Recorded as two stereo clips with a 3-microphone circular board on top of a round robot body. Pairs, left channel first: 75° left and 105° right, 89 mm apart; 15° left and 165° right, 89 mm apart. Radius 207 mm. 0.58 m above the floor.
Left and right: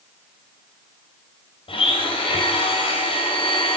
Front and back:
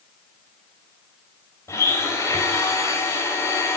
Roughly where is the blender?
Left.